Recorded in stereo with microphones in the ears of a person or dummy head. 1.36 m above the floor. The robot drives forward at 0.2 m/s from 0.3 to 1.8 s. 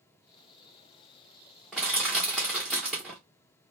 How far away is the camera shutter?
I don't hear a camera shutter.